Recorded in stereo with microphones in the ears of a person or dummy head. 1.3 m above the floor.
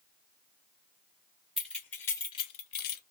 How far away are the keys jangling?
About 1.0 m.